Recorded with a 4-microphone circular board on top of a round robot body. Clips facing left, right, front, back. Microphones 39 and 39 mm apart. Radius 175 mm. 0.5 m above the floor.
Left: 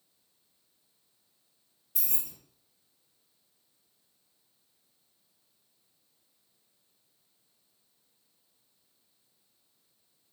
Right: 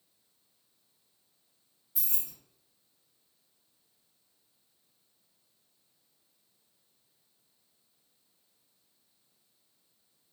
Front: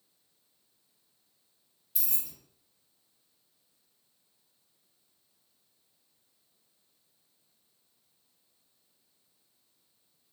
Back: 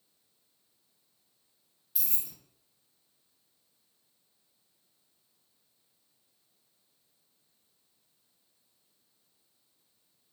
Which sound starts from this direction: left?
Keys jangling, at 1.9 s.